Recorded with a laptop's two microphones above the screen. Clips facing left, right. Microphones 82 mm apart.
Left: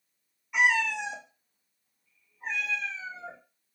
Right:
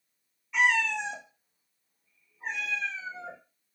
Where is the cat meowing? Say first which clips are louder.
Even; 15° left (ahead or behind), 0.7 m; by 3.4 s 25° right (ahead or behind), 1.3 m.